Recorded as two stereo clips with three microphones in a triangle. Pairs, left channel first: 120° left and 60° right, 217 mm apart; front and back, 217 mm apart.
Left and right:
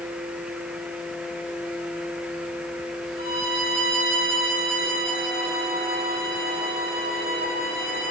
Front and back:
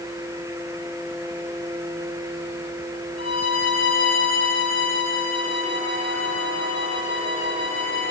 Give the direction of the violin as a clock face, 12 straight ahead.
1 o'clock.